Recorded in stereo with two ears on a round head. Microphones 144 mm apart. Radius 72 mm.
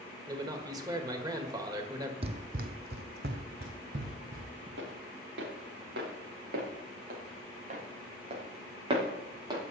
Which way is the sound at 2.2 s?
35° right (ahead or behind).